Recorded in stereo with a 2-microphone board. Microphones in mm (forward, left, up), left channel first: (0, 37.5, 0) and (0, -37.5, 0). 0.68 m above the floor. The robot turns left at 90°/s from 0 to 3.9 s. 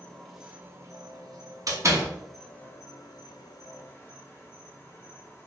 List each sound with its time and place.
0.0 s an insect: 30° left, 0.8 m; by 5.5 s 35° left, 0.8 m
1.7 s a door slam: 50° right (ahead or behind), 1.0 m; by 2.1 s 30° right (ahead or behind), 1.0 m